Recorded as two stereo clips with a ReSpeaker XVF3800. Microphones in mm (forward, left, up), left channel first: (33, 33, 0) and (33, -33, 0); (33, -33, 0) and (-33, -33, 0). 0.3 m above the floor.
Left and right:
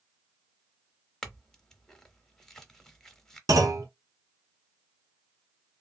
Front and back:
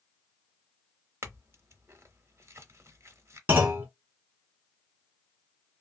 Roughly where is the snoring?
No snoring in this recording.